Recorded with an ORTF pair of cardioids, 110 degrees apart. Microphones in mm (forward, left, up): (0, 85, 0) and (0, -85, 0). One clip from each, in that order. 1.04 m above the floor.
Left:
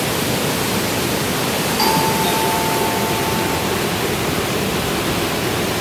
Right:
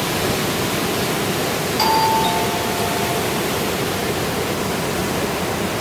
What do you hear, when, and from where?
1.8 s a doorbell: 10° right, 3 m